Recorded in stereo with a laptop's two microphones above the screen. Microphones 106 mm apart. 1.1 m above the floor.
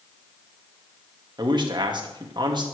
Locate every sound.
1.4 s a man speaking: 45° right (ahead or behind), 1.5 m